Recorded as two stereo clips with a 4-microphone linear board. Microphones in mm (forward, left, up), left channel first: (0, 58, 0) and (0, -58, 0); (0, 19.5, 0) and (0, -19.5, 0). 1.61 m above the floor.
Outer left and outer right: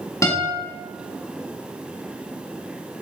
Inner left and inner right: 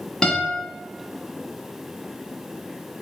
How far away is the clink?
No clink in this recording.